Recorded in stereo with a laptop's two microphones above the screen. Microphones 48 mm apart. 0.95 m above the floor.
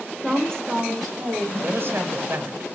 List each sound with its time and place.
0.2 s a woman speaking: 25° left (ahead or behind), 1.5 m; by 1.5 s 20° right (ahead or behind), 1.5 m
1.6 s a man speaking: 50° right (ahead or behind), 0.8 m